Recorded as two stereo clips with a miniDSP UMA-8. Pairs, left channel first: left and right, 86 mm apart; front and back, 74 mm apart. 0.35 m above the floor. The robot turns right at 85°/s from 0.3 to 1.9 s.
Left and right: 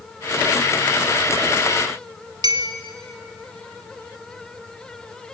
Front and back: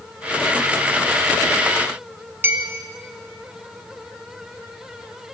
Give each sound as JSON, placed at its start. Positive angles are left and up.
{"t": 2.4, "sound": "a clink", "azimuth_deg": -120, "distance_m": 1.7}